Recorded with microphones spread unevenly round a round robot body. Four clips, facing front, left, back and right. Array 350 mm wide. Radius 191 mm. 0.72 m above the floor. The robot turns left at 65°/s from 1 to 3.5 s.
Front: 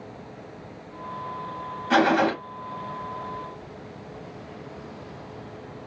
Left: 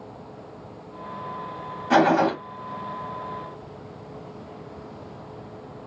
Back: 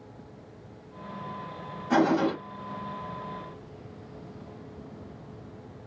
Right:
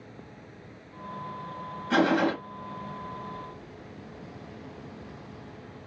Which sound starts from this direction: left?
A gunshot, at 1.9 s.